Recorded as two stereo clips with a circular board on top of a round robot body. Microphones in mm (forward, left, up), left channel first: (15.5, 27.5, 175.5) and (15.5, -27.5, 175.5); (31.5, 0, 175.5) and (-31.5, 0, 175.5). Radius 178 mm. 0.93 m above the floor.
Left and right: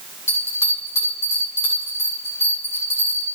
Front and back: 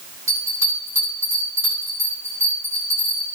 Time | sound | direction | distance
0.3 | a bell | 125° left | 8 m